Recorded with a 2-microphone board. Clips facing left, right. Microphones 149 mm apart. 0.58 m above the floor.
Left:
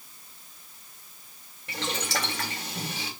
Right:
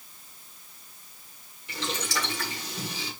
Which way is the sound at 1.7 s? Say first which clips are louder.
Left 1 dB; 75° left (ahead or behind).